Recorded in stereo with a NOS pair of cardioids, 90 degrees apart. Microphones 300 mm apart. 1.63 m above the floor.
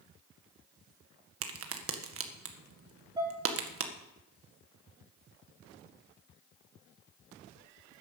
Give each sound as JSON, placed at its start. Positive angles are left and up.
{"t": 1.4, "sound": "a crack", "azimuth_deg": -50, "distance_m": 1.7}
{"t": 3.2, "sound": "dishes clattering", "azimuth_deg": -15, "distance_m": 4.5}